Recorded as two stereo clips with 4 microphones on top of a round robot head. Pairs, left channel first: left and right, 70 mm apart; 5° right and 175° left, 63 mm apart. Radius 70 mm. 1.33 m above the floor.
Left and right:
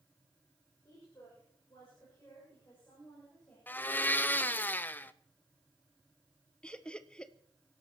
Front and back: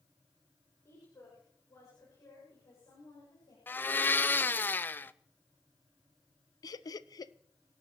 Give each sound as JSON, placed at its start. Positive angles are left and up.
{"t": 0.8, "sound": "a woman speaking", "azimuth_deg": 35, "distance_m": 6.5}
{"t": 3.7, "sound": "a blender", "azimuth_deg": 40, "distance_m": 0.5}
{"t": 6.6, "sound": "laughter", "azimuth_deg": 10, "distance_m": 0.7}